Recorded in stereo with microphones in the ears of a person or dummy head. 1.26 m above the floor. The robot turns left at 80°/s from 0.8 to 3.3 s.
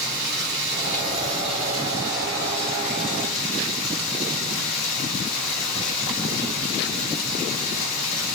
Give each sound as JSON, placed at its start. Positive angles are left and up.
{"t": 0.0, "sound": "running water", "azimuth_deg": -70, "distance_m": 1.3}